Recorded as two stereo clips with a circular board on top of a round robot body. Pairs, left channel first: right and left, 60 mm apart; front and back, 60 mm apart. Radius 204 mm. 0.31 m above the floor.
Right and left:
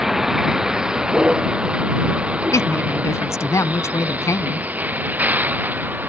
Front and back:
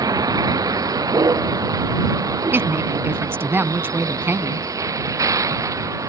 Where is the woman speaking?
130° right.